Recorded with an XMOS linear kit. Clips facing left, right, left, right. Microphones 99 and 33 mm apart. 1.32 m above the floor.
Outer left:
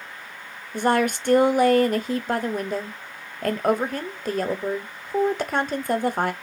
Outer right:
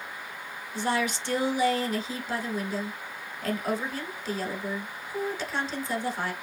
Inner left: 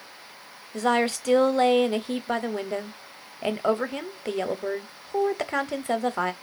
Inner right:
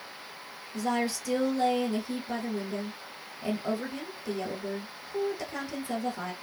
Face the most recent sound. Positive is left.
turn(degrees=50)  # may be behind; listen again after turning